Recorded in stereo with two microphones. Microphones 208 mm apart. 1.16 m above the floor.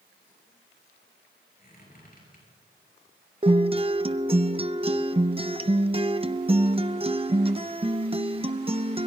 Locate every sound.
1.6 s a squeak: 45° left (ahead or behind), 7 m
3.4 s a guitar: 25° right (ahead or behind), 0.5 m